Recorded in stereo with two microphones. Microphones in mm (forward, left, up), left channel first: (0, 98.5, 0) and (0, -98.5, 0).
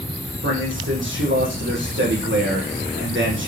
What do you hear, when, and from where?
0.4 s a man speaking: 75° right (ahead or behind), 8 m